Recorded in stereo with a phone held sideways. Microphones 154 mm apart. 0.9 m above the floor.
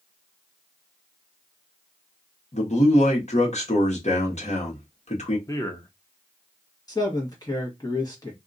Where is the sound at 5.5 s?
20° left (ahead or behind), 0.6 m.